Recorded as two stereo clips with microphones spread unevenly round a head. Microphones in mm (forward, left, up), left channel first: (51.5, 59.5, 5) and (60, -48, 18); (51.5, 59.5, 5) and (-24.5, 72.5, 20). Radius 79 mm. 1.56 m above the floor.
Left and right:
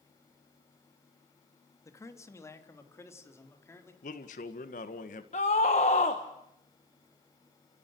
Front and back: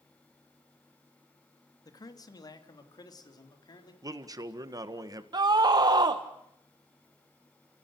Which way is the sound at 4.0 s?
125° left.